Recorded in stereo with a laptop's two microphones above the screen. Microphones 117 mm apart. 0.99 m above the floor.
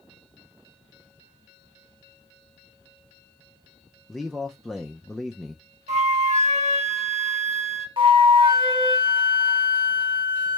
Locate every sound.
4.1 s a man speaking: 5° left (ahead or behind), 0.5 m
5.9 s a flute: 75° right (ahead or behind), 1.0 m
8.0 s a flute: 45° right (ahead or behind), 0.9 m